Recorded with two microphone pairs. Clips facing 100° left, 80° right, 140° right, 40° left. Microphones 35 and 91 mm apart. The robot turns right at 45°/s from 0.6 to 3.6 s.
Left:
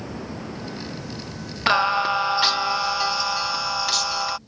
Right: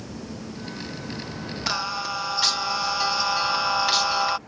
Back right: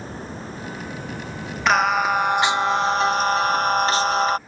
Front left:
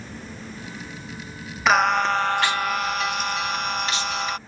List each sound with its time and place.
0.0 s running water: 165° left; by 4.5 s 60° right
1.7 s singing: 130° left; by 4.4 s 145° right